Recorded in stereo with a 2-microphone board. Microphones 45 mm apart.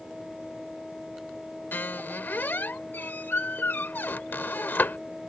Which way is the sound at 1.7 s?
50° left (ahead or behind).